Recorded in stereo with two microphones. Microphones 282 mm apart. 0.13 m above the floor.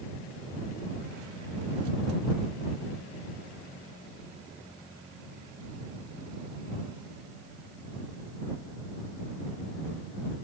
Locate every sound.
Only background noise.